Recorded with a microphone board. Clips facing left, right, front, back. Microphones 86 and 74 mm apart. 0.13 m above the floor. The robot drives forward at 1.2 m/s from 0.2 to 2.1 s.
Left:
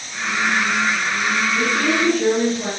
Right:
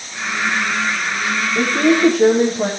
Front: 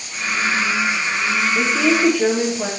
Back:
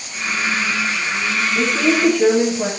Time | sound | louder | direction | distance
1.6 | a woman speaking | right 9 dB, back 1 dB | 75° right | 5 m